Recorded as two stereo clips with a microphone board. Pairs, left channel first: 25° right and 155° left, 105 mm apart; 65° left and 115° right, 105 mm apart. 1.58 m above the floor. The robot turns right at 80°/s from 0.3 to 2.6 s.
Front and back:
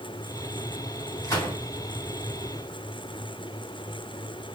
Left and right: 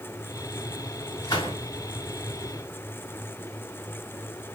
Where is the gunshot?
15° left, 2.5 m; by 1.6 s 45° left, 2.5 m.